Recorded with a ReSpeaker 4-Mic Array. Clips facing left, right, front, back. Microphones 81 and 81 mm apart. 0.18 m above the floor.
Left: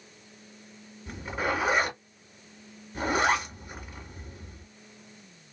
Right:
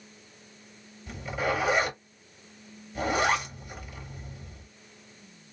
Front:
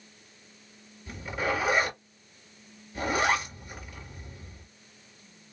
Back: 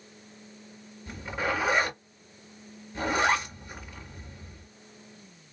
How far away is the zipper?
About 2.5 m.